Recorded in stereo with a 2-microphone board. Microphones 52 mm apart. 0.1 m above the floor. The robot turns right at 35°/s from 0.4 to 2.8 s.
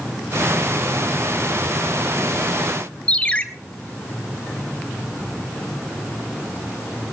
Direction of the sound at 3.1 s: 25° left (ahead or behind).